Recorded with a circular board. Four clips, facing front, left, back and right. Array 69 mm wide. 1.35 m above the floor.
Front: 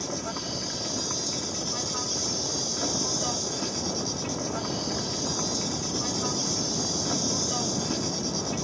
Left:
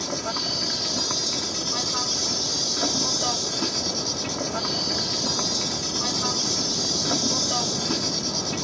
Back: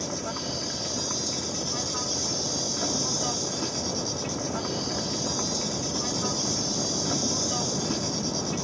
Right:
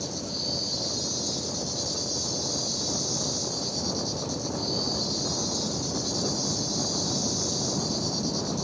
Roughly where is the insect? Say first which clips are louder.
Left 5 dB, back 1 dB; left.